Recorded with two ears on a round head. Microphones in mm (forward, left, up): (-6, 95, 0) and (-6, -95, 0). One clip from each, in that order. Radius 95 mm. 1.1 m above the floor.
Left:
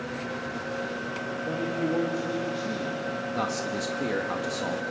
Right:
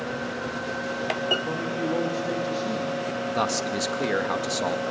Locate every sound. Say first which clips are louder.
1.4 s a man speaking: right 1 dB; 30° right (ahead or behind), 2.5 m
3.4 s a man speaking: right 5 dB; 35° right (ahead or behind), 1.3 m